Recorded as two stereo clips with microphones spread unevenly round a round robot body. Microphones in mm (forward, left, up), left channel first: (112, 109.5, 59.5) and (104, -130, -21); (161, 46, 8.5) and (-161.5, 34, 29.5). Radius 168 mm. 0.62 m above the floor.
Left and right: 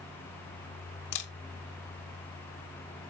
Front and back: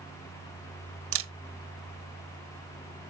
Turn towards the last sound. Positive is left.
turn(degrees=130)